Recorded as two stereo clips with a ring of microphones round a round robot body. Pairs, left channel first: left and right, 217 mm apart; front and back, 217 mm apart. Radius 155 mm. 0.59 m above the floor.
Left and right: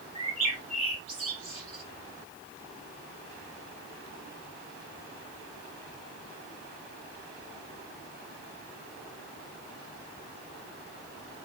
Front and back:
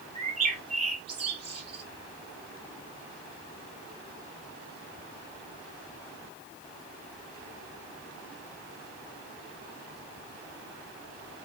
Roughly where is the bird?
Behind right.